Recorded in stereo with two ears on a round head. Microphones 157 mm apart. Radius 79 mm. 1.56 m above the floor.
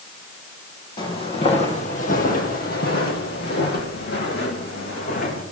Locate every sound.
1.0 s footsteps: 25° left (ahead or behind), 3 m; by 5.4 s 50° left (ahead or behind), 4 m